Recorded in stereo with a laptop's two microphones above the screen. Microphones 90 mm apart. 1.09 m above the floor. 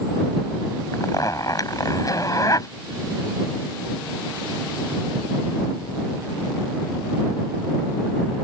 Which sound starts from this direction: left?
A zipper, at 0.9 s.